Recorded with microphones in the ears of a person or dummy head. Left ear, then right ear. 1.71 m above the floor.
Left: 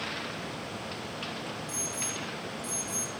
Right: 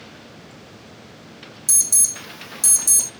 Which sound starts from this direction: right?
An alarm, at 1.7 s.